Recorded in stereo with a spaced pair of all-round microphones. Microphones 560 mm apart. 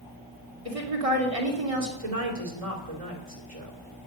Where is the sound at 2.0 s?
80° right, 3 m.